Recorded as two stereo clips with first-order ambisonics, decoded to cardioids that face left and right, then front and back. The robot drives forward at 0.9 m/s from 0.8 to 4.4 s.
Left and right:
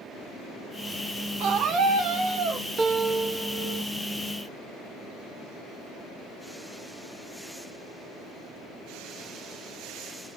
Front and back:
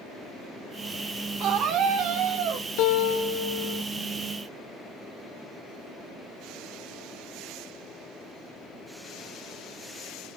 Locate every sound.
1.4 s a scream: 135° right, 2 m; by 2.7 s 150° right, 3 m
2.8 s a guitar: 20° right, 1.6 m; by 3.8 s 45° right, 0.7 m